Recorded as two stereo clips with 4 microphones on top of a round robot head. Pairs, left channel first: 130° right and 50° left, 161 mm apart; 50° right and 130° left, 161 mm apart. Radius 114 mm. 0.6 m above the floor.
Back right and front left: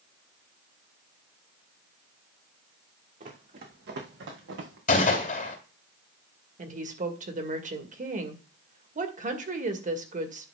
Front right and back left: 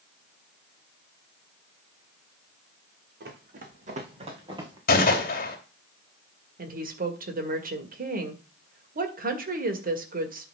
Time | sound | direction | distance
3.2 | running footsteps | 95° left | 2.5 m
4.9 | a gunshot | 85° right | 3 m
6.6 | a woman speaking | 95° left | 2 m